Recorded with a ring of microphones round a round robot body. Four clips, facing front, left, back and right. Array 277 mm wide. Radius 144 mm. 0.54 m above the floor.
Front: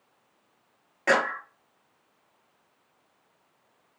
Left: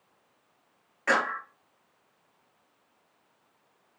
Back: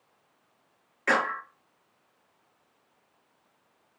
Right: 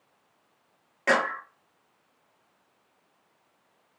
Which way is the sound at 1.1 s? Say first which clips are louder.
Right 2 dB, front 2 dB; 45° right.